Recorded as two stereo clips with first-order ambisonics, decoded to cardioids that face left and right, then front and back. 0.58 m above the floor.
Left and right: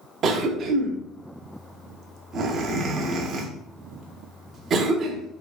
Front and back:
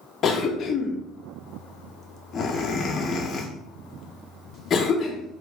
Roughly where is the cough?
Ahead right.